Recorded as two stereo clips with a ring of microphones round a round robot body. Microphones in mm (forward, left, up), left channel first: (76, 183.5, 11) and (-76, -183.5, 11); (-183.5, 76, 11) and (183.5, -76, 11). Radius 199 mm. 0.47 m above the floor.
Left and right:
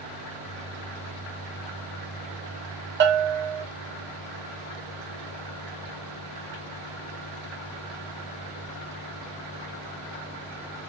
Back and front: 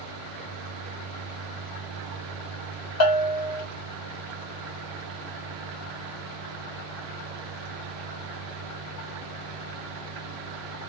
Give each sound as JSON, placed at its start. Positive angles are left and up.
{"t": 3.0, "sound": "a bell", "azimuth_deg": -165, "distance_m": 0.7}